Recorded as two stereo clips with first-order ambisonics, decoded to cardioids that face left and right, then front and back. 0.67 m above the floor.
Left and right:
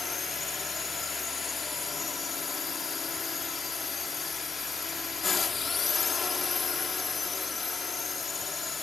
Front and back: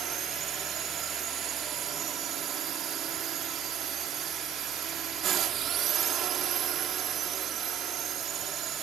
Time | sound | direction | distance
0.0 | a drone | 155° left | ?